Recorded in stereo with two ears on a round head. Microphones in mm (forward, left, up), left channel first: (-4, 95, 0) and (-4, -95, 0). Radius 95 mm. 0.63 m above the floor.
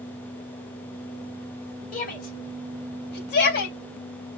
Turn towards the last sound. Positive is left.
turn(degrees=55)  # may be behind; listen again after turning